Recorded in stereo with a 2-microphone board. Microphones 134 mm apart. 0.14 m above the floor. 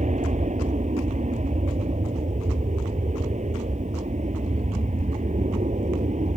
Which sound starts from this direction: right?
An aircraft, at 0.0 s.